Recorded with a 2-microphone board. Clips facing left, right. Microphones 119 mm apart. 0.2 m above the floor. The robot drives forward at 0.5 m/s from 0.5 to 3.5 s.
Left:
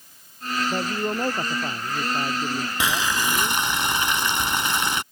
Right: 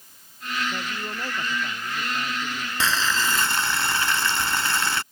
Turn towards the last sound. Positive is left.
turn(degrees=15)  # may be behind; listen again after turning